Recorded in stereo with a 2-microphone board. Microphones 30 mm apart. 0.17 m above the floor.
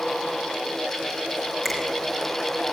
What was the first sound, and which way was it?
A finger snap, centre (ahead or behind).